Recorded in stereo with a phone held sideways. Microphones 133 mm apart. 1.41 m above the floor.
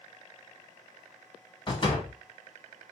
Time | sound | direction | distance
1.7 | a door slam | 35° left (ahead or behind) | 1.9 m